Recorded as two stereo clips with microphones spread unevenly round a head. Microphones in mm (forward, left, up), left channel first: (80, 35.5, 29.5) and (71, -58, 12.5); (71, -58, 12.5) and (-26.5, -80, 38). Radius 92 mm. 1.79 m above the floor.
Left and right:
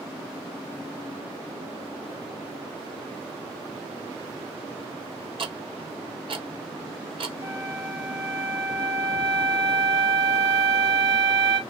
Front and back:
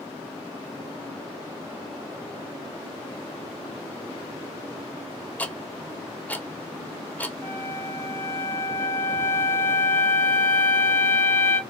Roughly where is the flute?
Ahead right.